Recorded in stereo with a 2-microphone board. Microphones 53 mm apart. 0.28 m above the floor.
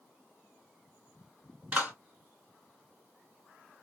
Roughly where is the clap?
Right.